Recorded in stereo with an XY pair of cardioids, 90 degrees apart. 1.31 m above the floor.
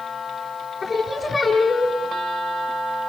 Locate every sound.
0.8 s singing: 40° left, 5 m